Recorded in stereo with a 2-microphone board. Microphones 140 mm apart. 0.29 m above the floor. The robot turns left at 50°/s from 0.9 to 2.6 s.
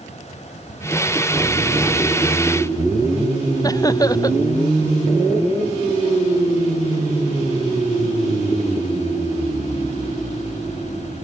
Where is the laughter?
25° left (ahead or behind).